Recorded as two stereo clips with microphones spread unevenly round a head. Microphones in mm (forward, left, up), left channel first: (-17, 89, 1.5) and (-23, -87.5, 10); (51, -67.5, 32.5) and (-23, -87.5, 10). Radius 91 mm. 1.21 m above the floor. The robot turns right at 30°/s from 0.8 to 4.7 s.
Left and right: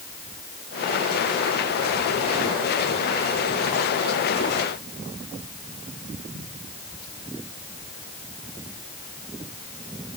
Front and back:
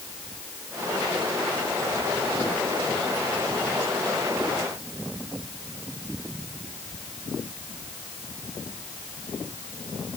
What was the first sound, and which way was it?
Only background noise.